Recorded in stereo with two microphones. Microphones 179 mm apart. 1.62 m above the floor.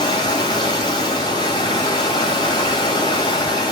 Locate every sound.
0.0 s running water: 25° left (ahead or behind), 1.7 m